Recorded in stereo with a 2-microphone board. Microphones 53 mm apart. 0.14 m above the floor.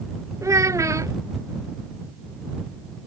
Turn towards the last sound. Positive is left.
turn(degrees=-85)